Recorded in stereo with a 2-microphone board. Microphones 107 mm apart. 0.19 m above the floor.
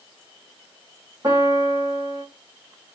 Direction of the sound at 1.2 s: 35° right (ahead or behind).